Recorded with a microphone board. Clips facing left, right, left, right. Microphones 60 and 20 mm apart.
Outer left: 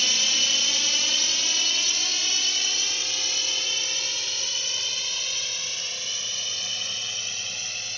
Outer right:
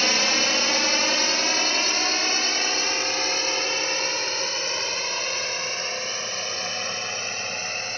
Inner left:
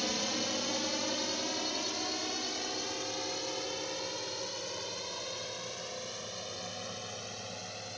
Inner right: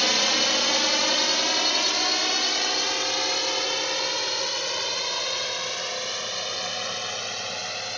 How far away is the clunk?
I don't hear a clunk.